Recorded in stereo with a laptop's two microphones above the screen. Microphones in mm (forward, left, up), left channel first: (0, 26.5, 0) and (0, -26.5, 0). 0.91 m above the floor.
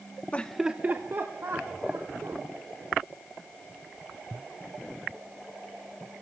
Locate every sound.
0.3 s laughter: 25° left (ahead or behind), 0.7 m; by 2.4 s 60° right (ahead or behind), 3 m